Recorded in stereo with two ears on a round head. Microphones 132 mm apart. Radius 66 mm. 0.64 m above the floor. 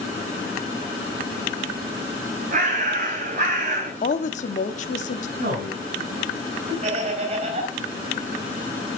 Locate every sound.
2.5 s a bird: 55° right (ahead or behind), 4.5 m
4.0 s a woman speaking: 55° left (ahead or behind), 0.8 m
5.4 s a man speaking: 65° right (ahead or behind), 3.5 m
6.8 s laughter: 45° right (ahead or behind), 4 m